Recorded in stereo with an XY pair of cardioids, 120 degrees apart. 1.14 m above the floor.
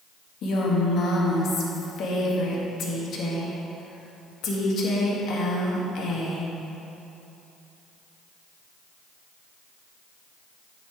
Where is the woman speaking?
60° left, 1.7 m.